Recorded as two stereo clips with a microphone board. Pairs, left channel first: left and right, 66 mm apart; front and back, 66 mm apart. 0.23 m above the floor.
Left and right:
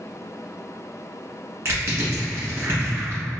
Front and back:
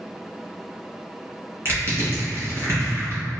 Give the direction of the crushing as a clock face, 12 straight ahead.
5 o'clock.